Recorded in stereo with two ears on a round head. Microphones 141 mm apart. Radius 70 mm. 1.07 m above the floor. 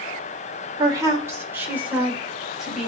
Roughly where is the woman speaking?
Right.